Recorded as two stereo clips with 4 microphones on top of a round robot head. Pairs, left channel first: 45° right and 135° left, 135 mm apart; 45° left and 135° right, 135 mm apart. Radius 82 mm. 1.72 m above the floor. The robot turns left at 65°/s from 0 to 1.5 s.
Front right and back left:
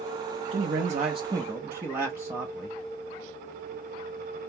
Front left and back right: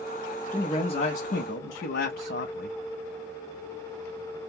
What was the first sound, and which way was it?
A man speaking, 125° left.